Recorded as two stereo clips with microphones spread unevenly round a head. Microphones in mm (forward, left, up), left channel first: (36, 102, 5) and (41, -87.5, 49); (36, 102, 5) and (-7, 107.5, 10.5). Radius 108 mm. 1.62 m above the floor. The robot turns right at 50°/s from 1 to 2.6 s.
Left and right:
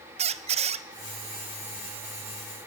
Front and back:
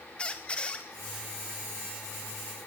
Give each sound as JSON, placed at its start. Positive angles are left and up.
{"t": 0.2, "sound": "a squeak", "azimuth_deg": -80, "distance_m": 0.6}